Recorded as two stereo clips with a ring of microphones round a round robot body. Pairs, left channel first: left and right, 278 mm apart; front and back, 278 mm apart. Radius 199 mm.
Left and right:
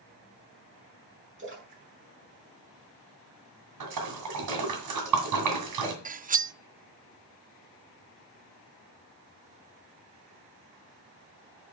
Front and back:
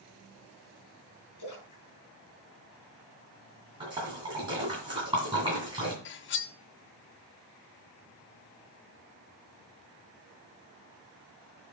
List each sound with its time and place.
1.4 s a splash: 45° right, 5 m
3.8 s a splash: 105° right, 2 m
6.0 s cutlery clinking: 35° right, 0.6 m